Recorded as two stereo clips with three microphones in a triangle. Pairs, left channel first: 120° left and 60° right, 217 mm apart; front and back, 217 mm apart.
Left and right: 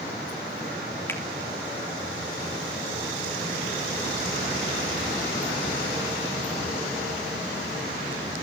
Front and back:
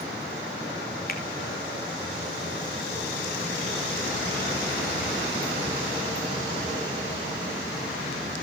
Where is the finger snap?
40° left, 3 m.